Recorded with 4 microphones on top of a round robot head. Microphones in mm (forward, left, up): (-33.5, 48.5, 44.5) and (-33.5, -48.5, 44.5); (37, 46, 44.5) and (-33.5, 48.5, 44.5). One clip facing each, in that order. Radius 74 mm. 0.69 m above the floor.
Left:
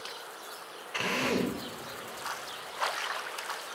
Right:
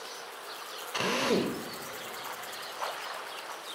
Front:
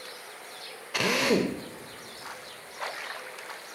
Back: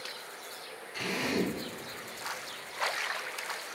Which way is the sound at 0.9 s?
20° right.